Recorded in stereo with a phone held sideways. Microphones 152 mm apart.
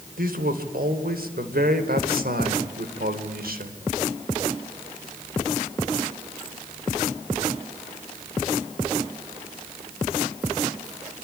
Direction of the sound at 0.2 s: 70° right (ahead or behind).